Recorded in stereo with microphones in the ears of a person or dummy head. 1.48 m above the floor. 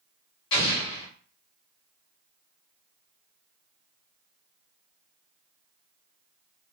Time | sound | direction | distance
0.5 | an explosion | 35° left (ahead or behind) | 1.0 m